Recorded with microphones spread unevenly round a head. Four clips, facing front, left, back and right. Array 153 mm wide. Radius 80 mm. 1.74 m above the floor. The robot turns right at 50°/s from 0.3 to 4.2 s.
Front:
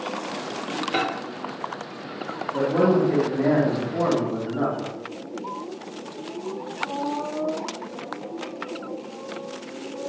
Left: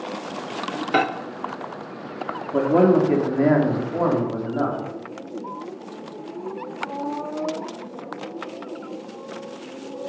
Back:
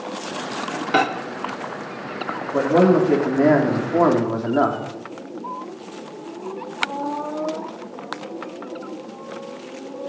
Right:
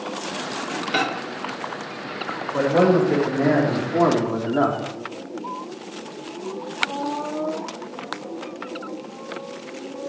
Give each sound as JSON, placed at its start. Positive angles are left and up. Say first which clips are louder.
{"t": 0.9, "sound": "a microwave", "louder": "left 4 dB, back 7 dB", "azimuth_deg": 140, "distance_m": 1.1}
{"t": 2.5, "sound": "a man speaking", "louder": "left 1 dB, back 4 dB", "azimuth_deg": 120, "distance_m": 5.0}